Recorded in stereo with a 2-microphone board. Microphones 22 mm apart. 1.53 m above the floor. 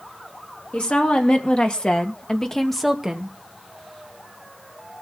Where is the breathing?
No breathing in this recording.